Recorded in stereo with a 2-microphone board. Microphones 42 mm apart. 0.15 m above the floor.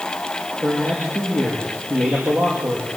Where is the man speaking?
65° right (ahead or behind), 5.5 m.